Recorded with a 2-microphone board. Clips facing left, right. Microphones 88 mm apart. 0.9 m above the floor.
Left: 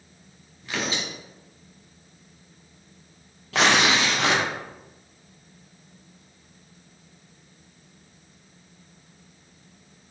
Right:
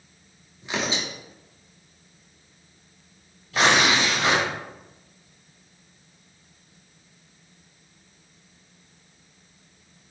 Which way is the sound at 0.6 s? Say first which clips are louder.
Right 1 dB; 20° right (ahead or behind).